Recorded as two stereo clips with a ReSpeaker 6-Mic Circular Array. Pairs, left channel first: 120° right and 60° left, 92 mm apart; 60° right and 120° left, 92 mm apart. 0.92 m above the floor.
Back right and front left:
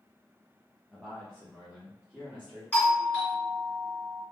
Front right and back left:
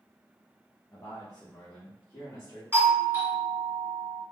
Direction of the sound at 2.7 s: 170° left.